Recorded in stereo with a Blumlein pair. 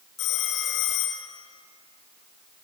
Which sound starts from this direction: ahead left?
A phone ringing, at 0.2 s.